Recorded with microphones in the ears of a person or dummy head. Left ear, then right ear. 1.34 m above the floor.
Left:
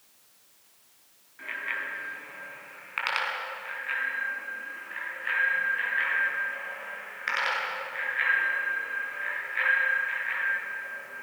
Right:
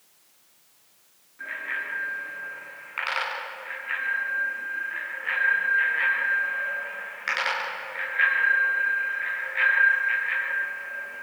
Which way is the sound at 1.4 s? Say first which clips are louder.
Right 2 dB; 20° left (ahead or behind).